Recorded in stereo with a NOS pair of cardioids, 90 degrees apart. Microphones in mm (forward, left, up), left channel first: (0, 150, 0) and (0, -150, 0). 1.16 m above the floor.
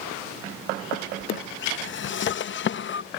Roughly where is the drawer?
Ahead left.